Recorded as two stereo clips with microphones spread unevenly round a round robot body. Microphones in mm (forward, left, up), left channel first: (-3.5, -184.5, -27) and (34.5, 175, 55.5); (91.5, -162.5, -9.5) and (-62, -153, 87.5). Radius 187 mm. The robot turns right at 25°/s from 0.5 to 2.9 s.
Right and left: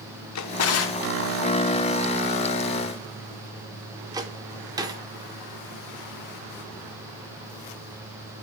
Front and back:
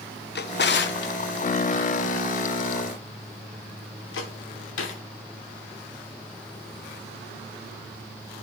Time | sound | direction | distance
0.3 | a drawer | 45° right | 0.6 m